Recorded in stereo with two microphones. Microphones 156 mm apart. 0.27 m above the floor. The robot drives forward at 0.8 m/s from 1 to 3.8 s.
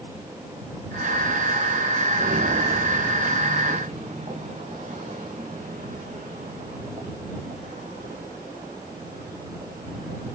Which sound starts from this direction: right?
Footsteps, at 2.1 s.